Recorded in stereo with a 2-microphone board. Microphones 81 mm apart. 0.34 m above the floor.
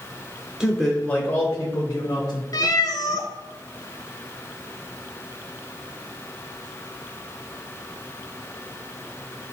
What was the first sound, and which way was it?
A man speaking, 5° right (ahead or behind).